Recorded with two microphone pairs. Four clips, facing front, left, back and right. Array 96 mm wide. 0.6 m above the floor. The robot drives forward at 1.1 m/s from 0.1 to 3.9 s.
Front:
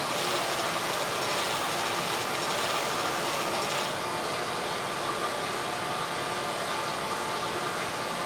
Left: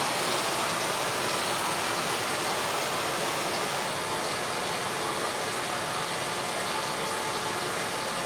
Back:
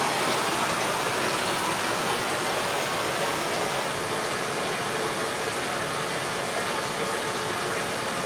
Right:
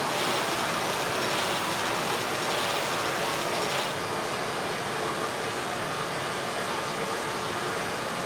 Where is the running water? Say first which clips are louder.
Right 1 dB, back 4 dB; 170° left, 5 m; by 8.3 s 175° left, 9 m.